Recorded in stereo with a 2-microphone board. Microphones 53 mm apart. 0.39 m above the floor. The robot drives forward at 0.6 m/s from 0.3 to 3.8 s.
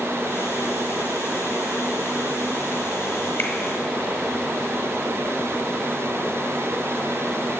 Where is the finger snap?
40° left (ahead or behind), 0.8 m; by 3.5 s 35° left (ahead or behind), 0.9 m.